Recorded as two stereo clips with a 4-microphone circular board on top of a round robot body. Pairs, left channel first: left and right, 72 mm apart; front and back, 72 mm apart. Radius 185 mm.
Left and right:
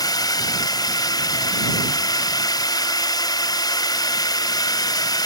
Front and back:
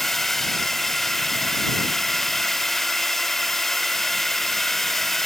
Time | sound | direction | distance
0.0 | a drone | 85° left | ?